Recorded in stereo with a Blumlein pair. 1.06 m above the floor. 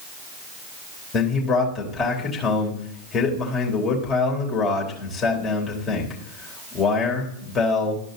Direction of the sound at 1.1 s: 25° left.